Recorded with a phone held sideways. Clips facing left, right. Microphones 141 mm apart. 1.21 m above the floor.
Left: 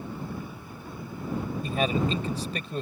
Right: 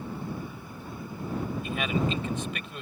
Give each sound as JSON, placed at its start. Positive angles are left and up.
{"t": 1.6, "sound": "a man speaking", "side_deg": 35}